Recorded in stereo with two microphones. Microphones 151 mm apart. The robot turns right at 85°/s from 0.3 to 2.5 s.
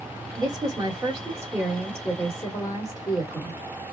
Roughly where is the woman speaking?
Behind right.